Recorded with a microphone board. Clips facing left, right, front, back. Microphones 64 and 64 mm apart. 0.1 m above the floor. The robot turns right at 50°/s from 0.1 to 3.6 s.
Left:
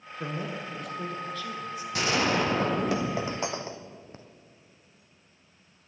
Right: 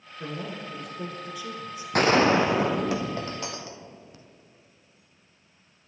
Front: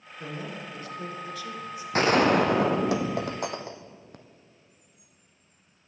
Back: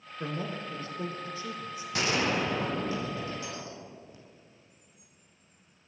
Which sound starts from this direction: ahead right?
A gunshot, at 1.9 s.